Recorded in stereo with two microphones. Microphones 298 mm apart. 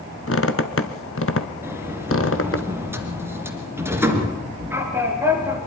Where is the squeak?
45° left (ahead or behind), 1.3 m.